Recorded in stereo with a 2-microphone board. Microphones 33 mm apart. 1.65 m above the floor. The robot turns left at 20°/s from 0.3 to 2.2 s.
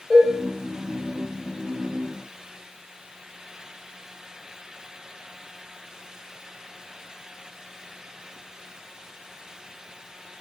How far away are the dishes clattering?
About 0.9 m.